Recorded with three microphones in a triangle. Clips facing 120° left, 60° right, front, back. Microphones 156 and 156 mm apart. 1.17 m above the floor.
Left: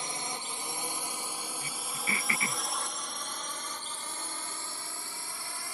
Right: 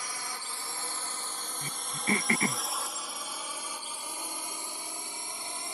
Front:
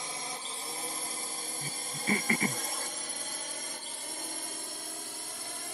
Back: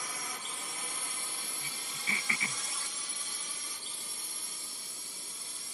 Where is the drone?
60° left; by 5.8 s 5° left.